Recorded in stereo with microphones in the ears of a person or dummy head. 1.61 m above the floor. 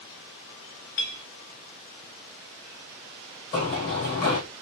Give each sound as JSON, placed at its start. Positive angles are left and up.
{"t": 1.0, "sound": "a clink", "side_deg": 70, "distance_m": 2.5}
{"t": 3.5, "sound": "running footsteps", "side_deg": 40, "distance_m": 2.5}